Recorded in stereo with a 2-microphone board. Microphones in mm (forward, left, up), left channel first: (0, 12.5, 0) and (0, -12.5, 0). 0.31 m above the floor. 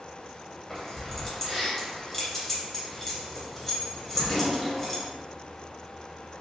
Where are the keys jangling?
10° left (ahead or behind), 0.8 m.